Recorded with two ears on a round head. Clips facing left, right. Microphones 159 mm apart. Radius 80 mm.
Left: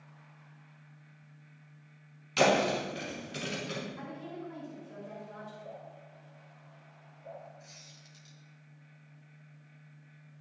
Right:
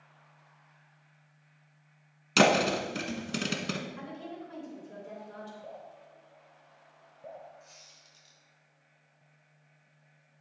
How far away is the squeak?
About 2.0 m.